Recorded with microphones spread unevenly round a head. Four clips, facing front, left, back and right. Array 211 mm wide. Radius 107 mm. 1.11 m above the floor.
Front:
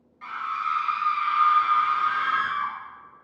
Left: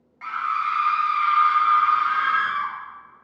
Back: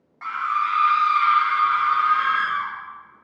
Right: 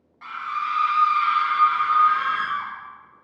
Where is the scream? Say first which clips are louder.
Left 3 dB, back 6 dB; 165° left, 1.1 m; by 2.7 s 70° right, 1.1 m.